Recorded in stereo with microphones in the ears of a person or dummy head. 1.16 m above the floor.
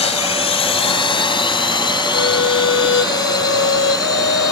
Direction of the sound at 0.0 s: 30° left (ahead or behind).